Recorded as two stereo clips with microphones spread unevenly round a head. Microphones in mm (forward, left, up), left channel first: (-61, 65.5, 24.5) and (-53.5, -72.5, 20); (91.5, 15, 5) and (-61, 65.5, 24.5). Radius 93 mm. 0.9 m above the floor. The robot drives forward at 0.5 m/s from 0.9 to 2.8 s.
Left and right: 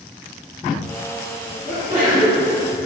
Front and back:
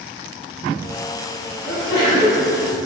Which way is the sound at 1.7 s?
25° right.